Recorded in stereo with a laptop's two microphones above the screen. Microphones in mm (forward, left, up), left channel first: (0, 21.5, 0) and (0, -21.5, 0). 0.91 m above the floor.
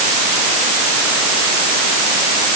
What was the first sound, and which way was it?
Only background noise.